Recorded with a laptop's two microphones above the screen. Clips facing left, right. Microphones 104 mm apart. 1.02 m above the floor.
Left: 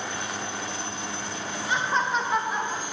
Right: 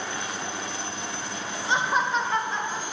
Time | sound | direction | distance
1.7 | laughter | 30° right (ahead or behind) | 0.8 m